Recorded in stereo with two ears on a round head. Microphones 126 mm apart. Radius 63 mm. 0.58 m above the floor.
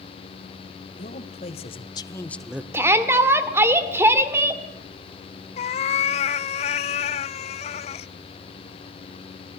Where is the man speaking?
55° left (ahead or behind), 2.5 m; by 2.6 s 15° right (ahead or behind), 1.1 m.